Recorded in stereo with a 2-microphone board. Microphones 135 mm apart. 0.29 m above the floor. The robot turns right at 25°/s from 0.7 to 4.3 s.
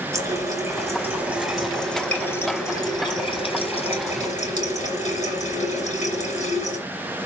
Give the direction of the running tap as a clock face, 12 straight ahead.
1 o'clock.